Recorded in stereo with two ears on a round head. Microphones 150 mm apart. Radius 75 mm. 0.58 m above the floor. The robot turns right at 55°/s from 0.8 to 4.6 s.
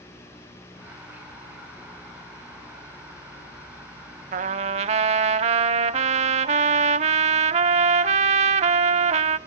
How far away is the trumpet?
About 0.6 m.